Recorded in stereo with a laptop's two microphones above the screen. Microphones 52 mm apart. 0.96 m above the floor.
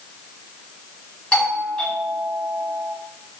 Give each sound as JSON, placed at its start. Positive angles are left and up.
{"t": 1.3, "sound": "a doorbell", "side_deg": 15, "distance_m": 9.0}